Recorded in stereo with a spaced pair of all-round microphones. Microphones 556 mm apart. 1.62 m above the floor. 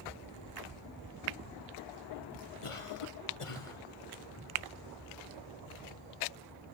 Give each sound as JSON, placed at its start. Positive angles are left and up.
{"t": 2.6, "sound": "a cough", "side_deg": 65, "distance_m": 1.3}